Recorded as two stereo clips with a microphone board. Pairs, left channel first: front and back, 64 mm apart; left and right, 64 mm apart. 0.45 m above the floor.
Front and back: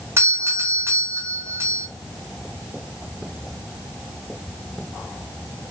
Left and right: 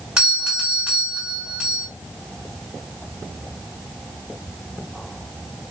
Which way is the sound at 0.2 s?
165° right.